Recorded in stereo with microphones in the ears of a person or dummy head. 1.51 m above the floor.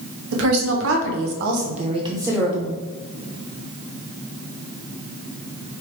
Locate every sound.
0.3 s a woman speaking: 75° right (ahead or behind), 1.3 m; by 2.8 s centre (ahead or behind), 1.0 m